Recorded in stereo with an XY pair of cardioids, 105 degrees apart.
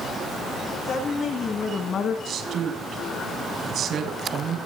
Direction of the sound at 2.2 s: 60° right.